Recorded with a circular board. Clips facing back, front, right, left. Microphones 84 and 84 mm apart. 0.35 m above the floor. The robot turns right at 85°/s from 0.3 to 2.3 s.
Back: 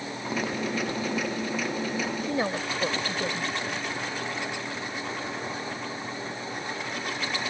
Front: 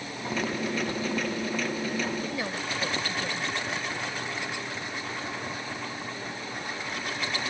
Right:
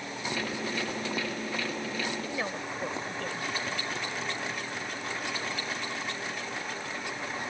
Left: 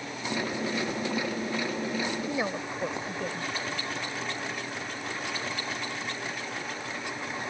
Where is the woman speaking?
150° left; by 3.5 s 155° left.